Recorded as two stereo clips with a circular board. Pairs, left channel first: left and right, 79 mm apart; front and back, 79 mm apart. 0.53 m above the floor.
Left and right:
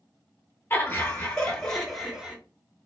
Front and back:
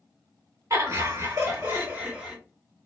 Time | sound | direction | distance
0.7 | laughter | 150° left | 1.7 m